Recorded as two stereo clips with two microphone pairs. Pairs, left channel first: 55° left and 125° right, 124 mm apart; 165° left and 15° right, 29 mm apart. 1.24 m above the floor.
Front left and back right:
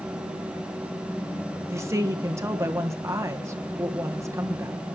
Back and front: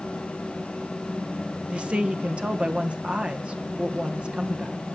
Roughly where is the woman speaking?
Ahead right.